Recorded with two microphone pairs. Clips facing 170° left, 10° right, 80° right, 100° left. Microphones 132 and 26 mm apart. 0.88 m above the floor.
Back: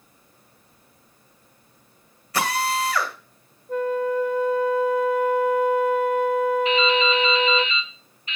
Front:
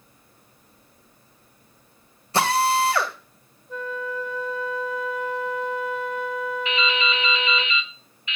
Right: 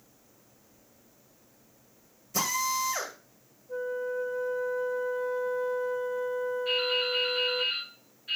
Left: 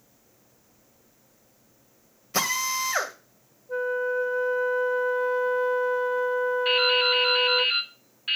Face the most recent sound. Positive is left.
turn(degrees=120)